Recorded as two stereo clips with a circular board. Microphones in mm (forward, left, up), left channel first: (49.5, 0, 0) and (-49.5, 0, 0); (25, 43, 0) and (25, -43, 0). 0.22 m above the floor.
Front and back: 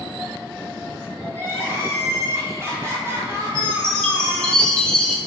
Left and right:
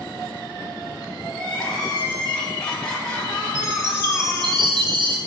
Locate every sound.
1.3 s crying: 160° left, 1.0 m
3.5 s a chime: 80° right, 1.0 m